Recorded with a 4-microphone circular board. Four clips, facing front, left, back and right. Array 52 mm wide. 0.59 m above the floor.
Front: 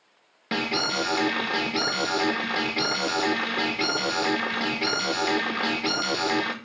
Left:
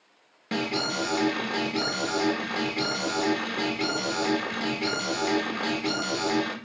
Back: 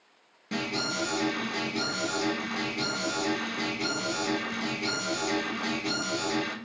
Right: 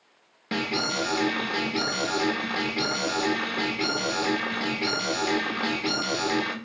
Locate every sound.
0.5 s an alarm: 5° right, 1.2 m